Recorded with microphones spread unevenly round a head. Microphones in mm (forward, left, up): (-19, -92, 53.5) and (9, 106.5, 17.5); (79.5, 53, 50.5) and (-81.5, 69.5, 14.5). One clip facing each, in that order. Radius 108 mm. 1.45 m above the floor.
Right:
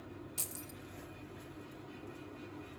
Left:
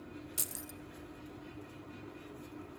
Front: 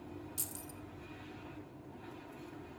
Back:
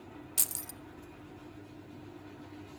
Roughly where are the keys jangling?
Behind.